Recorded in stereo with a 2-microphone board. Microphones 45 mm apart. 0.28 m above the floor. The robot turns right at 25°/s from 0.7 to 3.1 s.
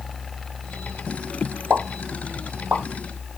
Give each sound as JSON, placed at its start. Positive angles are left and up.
{"t": 1.7, "sound": "a pop", "side_deg": -40, "distance_m": 0.7}